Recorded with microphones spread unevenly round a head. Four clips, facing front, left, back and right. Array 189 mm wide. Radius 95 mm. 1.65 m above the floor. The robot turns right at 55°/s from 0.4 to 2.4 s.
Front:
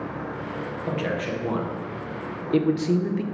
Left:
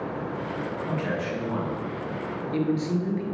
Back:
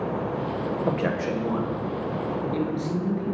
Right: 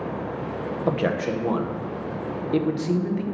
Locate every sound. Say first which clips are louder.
0.9 s a man speaking: right 8 dB, even; 115° right, 1.9 m; by 3.2 s 30° right, 1.9 m